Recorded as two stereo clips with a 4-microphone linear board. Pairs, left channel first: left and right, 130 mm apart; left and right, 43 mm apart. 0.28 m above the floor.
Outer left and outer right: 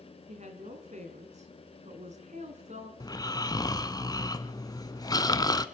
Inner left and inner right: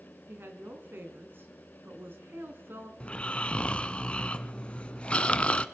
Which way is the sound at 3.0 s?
30° left (ahead or behind).